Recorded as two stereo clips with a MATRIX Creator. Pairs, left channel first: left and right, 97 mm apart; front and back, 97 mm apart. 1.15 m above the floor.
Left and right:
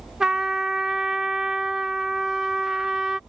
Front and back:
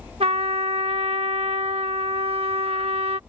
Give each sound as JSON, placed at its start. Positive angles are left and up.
{"t": 0.2, "sound": "a trumpet", "azimuth_deg": -175}